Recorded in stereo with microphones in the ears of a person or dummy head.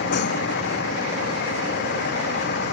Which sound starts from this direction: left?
A vehicle, at 0.0 s.